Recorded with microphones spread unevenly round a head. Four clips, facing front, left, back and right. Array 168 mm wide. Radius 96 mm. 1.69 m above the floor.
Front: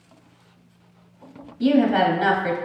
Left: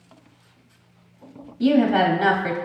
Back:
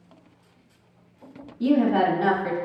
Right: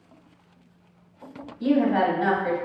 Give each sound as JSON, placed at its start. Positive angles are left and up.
{"t": 1.6, "sound": "a woman speaking", "azimuth_deg": 65, "distance_m": 0.7}